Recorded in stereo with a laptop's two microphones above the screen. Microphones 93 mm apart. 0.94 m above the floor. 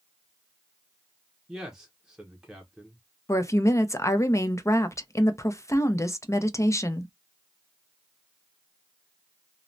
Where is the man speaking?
5° right (ahead or behind), 0.6 m.